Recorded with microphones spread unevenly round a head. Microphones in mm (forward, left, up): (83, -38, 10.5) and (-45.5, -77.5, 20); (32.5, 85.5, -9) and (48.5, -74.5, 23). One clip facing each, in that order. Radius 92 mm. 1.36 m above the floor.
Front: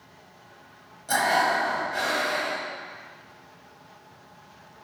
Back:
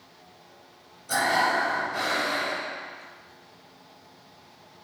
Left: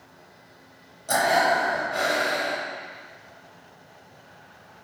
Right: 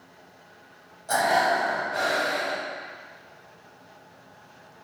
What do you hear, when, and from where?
1.1 s breathing: 40° left, 1.1 m